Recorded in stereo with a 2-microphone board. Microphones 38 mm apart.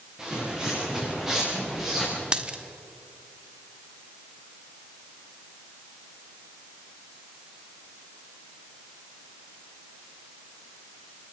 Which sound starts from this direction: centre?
Footsteps, at 0.2 s.